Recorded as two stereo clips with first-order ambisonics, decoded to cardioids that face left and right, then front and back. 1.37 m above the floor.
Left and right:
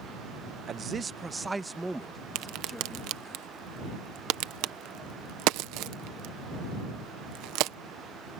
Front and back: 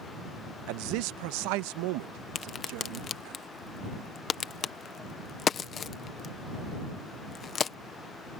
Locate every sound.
0.7 s a man speaking: 150° right; by 3.4 s 175° left
2.4 s a crack: 65° right